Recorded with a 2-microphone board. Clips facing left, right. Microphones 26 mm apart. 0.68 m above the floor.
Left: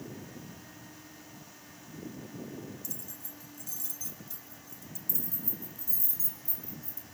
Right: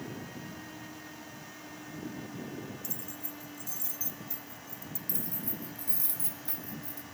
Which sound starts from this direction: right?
Keys jangling, at 5.1 s.